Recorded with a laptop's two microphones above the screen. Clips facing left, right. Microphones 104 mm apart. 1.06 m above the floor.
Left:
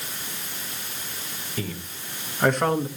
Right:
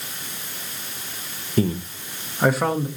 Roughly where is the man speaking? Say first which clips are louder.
Right 12 dB; right.